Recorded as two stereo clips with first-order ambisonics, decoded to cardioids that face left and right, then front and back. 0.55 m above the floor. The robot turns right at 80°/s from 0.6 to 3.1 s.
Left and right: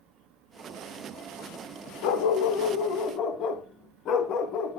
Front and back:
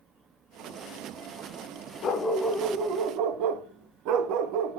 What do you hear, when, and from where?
2.0 s a dog barking: 55° left, 0.9 m; by 4.8 s 145° left, 0.9 m